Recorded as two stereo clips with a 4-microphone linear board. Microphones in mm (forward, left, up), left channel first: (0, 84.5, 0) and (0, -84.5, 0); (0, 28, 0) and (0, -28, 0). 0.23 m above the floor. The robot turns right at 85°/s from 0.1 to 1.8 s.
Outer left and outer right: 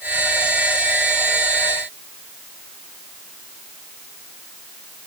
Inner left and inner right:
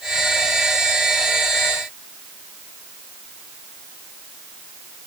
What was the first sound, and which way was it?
Only background noise.